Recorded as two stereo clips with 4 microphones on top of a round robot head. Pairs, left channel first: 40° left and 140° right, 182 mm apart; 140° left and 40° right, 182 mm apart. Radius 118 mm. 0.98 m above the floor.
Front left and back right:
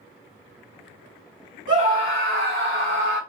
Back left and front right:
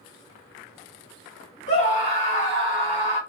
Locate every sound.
1.7 s a scream: 175° right, 1.3 m; by 3.2 s 145° right, 1.7 m